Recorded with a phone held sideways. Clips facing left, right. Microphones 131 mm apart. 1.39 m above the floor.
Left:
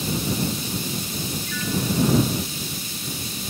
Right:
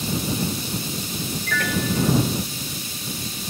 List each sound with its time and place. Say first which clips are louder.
1.5 s a piano: right 2 dB; 70° right (ahead or behind)